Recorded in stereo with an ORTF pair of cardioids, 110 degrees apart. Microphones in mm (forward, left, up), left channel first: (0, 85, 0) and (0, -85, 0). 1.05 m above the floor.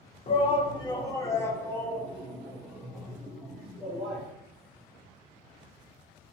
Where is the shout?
35° left, 1.0 m; by 4.2 s straight ahead, 3 m.